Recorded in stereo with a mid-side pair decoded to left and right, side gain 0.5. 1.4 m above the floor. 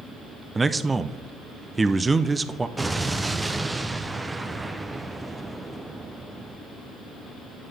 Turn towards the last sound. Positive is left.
turn(degrees=-15)